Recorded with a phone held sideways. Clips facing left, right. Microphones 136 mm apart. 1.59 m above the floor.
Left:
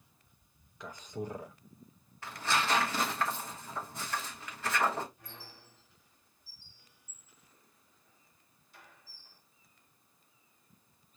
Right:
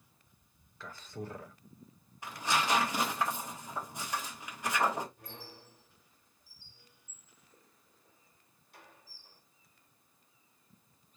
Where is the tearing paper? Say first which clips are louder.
Even; 15° right (ahead or behind), 1.2 m.